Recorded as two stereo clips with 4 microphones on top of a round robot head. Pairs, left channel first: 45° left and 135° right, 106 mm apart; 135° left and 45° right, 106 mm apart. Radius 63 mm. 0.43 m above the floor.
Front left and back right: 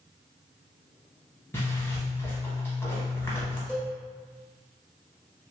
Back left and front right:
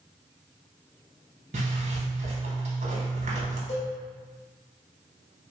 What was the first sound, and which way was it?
A zipper, 25° right.